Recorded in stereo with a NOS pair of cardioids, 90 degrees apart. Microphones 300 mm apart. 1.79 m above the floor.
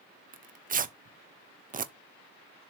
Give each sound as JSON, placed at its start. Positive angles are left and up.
{"t": 0.3, "sound": "tearing paper", "azimuth_deg": -30, "distance_m": 0.7}